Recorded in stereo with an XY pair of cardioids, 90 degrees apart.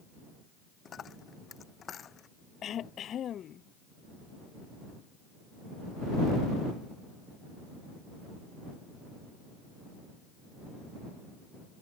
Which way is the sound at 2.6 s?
70° left.